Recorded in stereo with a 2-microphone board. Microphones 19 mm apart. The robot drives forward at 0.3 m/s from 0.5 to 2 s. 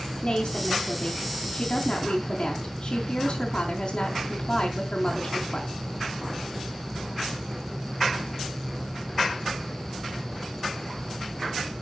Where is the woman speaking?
35° left (ahead or behind), 4 m; by 5.7 s 40° left (ahead or behind), 4 m.